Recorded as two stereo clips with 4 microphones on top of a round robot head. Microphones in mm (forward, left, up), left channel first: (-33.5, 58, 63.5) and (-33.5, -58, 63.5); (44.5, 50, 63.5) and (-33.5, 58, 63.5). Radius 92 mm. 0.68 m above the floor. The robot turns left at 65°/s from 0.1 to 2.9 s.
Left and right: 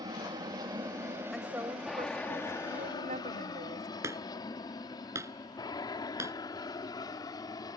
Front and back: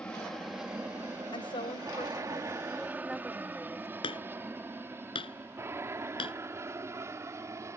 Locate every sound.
0.0 s an aircraft: 75° right; by 7.8 s 135° left
1.3 s a woman speaking: straight ahead; by 3.9 s 100° right
4.0 s hammering: 20° right